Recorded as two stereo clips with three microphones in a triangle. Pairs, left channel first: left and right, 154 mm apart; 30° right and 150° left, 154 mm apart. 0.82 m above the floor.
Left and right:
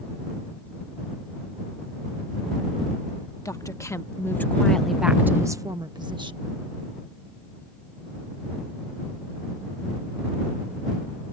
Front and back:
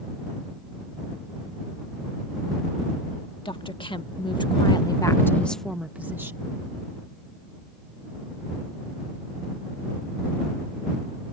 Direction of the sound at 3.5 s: 25° left.